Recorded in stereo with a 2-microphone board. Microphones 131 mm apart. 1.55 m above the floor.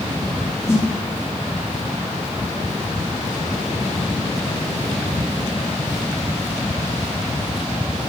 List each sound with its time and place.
0.7 s a snare drum: 20° left (ahead or behind), 0.6 m